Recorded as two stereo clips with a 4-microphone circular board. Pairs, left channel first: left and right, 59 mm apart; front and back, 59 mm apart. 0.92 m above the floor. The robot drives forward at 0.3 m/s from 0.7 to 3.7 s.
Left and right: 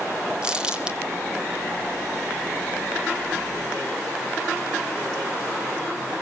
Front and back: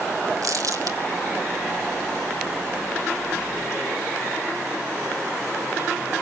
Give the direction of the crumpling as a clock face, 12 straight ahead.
5 o'clock.